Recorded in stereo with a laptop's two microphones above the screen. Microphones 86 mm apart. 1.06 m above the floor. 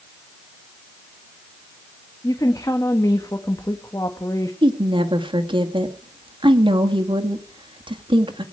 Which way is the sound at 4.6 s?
75° right (ahead or behind).